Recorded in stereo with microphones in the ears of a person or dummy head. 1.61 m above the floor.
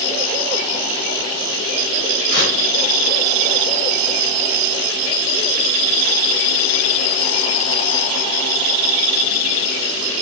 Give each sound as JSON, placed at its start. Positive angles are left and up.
{"t": 2.3, "sound": "tearing paper", "side_deg": 55, "distance_m": 1.9}